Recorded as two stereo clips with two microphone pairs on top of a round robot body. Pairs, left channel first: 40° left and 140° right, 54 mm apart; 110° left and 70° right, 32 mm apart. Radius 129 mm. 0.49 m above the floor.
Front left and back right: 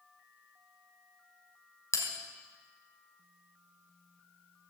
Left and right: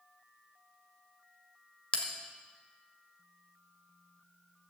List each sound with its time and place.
1.9 s a bell: 65° left, 2 m